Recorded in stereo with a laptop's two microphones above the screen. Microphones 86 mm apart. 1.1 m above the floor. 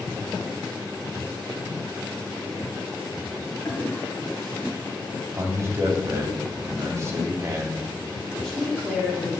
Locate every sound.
3.6 s a toilet flushing: 30° left (ahead or behind), 1.7 m
5.4 s a man speaking: 30° right (ahead or behind), 2.5 m
8.3 s a woman speaking: 5° left (ahead or behind), 2 m